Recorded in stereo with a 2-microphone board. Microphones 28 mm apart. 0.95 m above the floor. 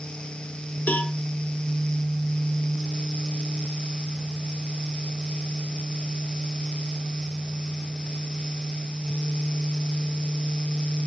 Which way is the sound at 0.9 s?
70° left (ahead or behind).